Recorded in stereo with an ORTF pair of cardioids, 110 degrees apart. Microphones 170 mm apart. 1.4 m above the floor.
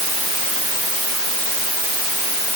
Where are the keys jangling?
I don't hear keys jangling.